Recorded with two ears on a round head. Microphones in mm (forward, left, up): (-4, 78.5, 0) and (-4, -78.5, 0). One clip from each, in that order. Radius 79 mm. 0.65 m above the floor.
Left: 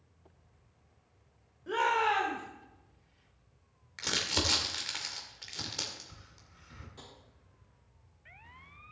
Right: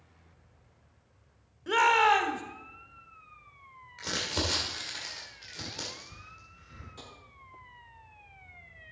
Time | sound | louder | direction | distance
1.7 | a shout | right 6 dB | 55° right (ahead or behind) | 1.7 m
4.0 | crumpling | left 1 dB | 35° left (ahead or behind) | 2 m
7.0 | tapping | right 4 dB | 10° right (ahead or behind) | 2 m